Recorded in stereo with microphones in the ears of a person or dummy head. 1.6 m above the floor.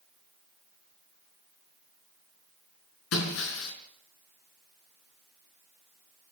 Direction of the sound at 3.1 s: 75° left (ahead or behind).